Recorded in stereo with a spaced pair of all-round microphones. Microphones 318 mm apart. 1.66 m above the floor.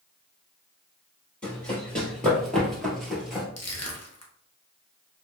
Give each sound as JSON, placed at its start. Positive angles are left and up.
{"t": 1.4, "sound": "running footsteps", "side_deg": 5, "distance_m": 2.0}
{"t": 3.6, "sound": "crushing", "side_deg": 55, "distance_m": 0.6}